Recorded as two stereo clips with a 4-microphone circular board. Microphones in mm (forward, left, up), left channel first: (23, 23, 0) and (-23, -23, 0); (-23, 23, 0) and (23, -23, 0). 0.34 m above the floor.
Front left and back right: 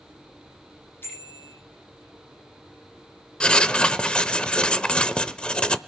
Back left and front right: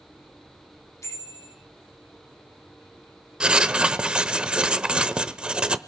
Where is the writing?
Straight ahead, 0.8 m.